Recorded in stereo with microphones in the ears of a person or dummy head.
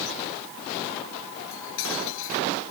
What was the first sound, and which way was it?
Cutlery clinking, 75° left (ahead or behind).